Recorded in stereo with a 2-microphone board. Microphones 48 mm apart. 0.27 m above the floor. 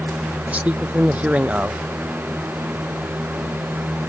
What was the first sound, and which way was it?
A man speaking, 30° right (ahead or behind).